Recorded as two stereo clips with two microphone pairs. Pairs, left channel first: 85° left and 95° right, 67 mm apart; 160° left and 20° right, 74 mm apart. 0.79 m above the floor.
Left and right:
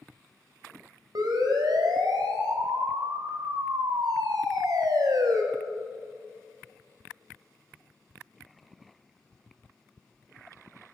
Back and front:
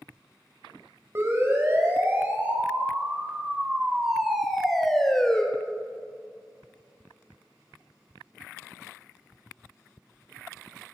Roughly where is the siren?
Right.